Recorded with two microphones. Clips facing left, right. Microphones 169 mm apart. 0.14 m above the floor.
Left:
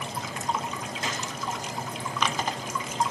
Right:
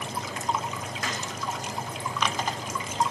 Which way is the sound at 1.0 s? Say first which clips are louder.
Left 1 dB; 25° left (ahead or behind).